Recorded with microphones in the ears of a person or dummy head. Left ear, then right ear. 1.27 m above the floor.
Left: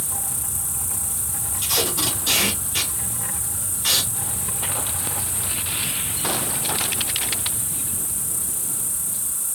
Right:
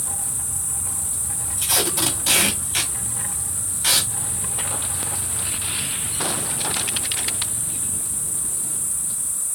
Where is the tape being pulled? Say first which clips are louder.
Right 1 dB; 40° right (ahead or behind), 1.1 m.